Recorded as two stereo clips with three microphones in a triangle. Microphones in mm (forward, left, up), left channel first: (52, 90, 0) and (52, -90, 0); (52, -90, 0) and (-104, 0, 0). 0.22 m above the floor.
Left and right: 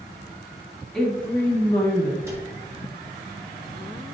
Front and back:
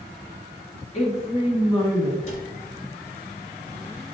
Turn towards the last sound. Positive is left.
turn(degrees=-20)